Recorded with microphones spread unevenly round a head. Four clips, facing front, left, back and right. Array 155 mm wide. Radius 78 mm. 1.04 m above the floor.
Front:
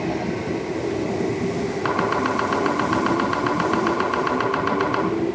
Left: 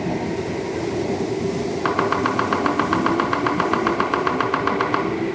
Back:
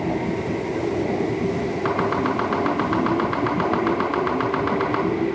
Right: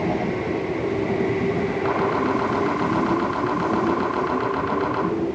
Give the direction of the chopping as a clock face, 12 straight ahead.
10 o'clock.